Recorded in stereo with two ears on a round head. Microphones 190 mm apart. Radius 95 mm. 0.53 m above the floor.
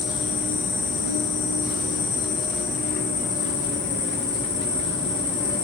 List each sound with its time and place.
0.0 s an insect: 20° left (ahead or behind), 3.5 m